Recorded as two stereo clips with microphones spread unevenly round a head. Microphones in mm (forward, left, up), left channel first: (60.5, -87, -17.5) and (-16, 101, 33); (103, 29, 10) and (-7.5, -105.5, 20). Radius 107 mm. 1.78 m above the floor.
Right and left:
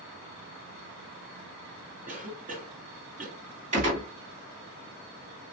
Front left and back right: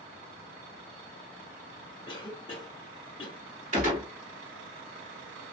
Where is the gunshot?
170° left, 1.9 m.